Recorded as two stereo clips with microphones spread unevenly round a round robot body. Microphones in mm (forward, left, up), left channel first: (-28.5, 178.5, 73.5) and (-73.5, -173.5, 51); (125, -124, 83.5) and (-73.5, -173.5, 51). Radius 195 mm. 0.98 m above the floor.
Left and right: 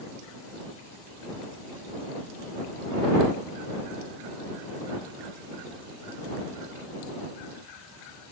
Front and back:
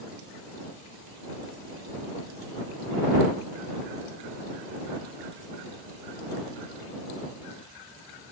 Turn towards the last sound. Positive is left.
No sound to turn to.